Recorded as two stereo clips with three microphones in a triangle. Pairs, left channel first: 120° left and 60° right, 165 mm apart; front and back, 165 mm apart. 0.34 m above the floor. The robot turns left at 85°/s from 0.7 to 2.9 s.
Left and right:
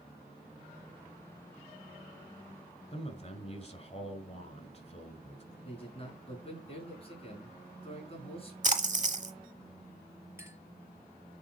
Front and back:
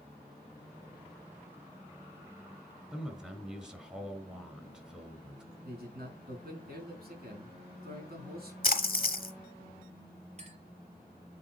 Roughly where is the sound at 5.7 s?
Behind.